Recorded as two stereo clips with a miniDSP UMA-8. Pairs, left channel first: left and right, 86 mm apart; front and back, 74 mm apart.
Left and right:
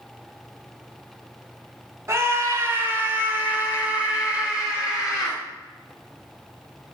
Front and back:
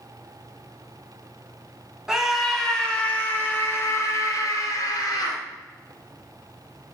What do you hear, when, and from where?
2.1 s a scream: 105° right, 1.1 m; by 5.4 s 10° right, 1.8 m